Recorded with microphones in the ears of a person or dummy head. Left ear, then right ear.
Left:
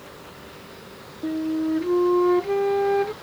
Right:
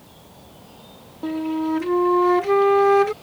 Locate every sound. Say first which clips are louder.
1.2 s a flute: right 1 dB; 40° right (ahead or behind)